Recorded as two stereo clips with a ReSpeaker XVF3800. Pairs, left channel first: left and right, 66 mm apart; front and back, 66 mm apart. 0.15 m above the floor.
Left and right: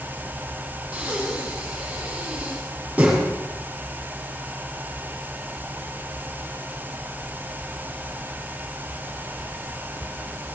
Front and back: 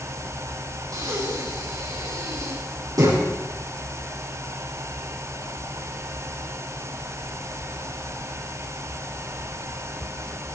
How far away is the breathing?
About 6 m.